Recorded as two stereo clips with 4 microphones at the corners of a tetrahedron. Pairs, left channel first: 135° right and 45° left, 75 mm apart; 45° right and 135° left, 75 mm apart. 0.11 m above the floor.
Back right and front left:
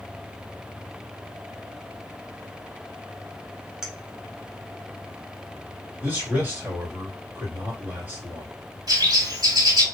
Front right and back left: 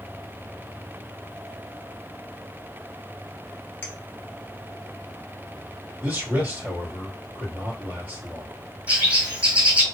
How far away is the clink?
About 0.8 m.